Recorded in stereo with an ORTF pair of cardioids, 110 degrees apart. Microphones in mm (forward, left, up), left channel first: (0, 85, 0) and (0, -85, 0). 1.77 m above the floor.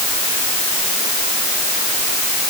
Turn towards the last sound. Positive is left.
No sound to turn to.